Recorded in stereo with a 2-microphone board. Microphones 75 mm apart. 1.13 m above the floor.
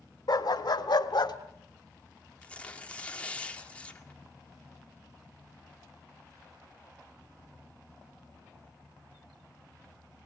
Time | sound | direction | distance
0.3 | a dog barking | 65° left (ahead or behind) | 1.5 m
2.4 | tearing paper | 15° left (ahead or behind) | 1.8 m